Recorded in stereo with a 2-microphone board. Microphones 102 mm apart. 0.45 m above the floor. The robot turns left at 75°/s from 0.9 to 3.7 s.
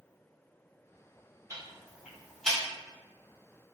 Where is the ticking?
30° right (ahead or behind), 1.3 m; by 2.6 s 15° left (ahead or behind), 1.3 m.